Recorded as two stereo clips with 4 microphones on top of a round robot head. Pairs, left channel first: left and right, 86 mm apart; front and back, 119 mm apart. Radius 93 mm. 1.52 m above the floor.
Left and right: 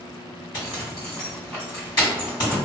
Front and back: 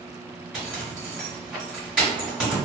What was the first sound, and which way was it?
A zipper, 100° left.